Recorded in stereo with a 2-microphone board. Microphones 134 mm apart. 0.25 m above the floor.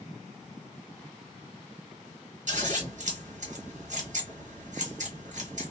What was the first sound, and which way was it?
Scissors, 65° right (ahead or behind).